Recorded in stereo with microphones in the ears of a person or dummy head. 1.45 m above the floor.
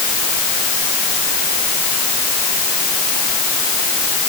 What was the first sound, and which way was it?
Only background noise.